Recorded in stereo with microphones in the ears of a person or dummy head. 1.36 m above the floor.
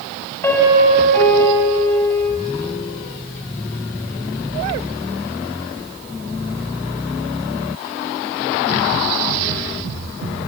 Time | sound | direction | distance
0.4 | a piano | 15° left (ahead or behind) | 6 m